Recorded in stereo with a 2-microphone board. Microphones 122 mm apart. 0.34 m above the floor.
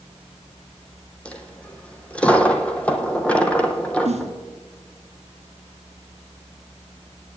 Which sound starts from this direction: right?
A snare drum, at 4.0 s.